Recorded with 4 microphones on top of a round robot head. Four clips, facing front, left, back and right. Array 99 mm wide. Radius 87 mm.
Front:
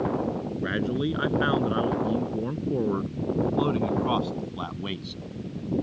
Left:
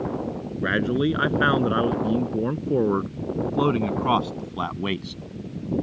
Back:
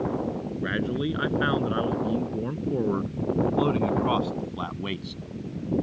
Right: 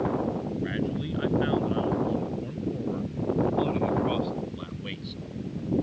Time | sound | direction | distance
0.6 | a man speaking | 85° left | ?